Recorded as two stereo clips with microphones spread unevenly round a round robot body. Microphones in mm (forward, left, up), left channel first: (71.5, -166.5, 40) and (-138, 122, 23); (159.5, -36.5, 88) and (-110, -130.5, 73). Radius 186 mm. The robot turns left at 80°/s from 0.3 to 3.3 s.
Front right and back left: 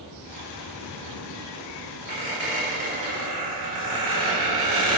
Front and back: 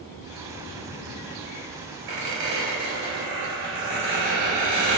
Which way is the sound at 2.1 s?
120° right.